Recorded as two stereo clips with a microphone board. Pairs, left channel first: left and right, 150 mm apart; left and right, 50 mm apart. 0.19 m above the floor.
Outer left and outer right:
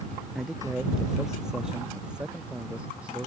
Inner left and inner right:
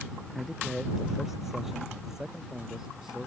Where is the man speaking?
Centre (ahead or behind); by 3.3 s 10° right (ahead or behind).